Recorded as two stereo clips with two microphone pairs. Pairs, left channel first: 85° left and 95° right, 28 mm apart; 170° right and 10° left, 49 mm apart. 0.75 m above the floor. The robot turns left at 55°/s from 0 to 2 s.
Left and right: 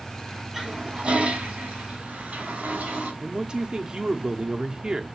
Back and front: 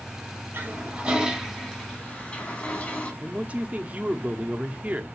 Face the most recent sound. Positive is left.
turn(degrees=-45)